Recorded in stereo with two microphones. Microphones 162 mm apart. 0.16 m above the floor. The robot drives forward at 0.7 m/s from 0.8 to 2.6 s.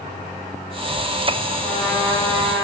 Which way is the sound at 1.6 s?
15° left (ahead or behind).